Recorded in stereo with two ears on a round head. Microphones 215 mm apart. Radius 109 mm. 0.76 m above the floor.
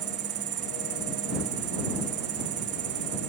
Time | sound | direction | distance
0.0 | an insect | 50° right (ahead or behind) | ?